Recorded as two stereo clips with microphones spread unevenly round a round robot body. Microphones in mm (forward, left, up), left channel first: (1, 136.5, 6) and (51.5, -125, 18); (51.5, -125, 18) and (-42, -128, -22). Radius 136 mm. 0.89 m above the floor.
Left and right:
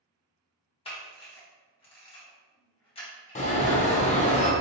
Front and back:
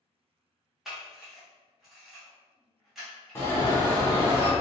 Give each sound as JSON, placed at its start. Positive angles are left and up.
{"t": 0.8, "sound": "a camera shutter", "azimuth_deg": 145, "distance_m": 1.0}
{"t": 3.4, "sound": "an alarm", "azimuth_deg": 95, "distance_m": 0.6}